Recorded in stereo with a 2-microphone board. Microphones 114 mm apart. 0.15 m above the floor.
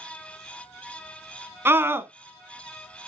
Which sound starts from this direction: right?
A scream, at 1.6 s.